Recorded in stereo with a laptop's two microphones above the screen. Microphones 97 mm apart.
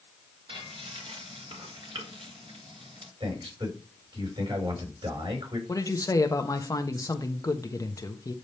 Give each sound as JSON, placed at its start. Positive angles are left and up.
{"t": 0.5, "sound": "frying", "side_deg": -65, "distance_m": 2.5}
{"t": 3.2, "sound": "a man speaking", "side_deg": -65, "distance_m": 5.0}
{"t": 5.7, "sound": "a woman speaking", "side_deg": 35, "distance_m": 1.0}